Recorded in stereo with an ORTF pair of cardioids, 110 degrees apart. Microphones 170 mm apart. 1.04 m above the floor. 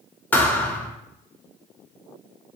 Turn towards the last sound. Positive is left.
turn(degrees=10)